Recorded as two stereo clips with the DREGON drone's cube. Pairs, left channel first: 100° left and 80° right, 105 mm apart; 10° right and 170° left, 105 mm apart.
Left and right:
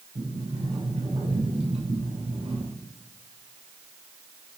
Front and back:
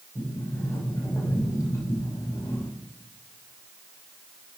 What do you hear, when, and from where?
0.1 s a sliding door: 75° right, 6.5 m